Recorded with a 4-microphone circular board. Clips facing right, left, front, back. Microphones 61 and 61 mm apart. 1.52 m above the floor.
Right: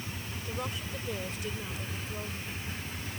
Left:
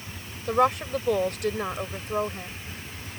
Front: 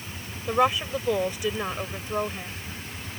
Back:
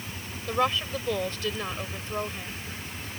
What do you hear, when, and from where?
0.5 s a woman speaking: 75° left